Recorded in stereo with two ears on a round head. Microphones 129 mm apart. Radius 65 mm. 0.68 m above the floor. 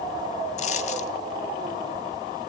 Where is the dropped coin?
50° left (ahead or behind), 1.4 m.